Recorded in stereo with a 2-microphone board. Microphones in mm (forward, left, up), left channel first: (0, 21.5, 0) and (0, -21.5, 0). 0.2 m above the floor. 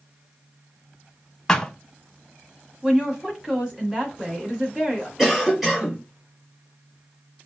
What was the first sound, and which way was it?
A thud, 15° left (ahead or behind).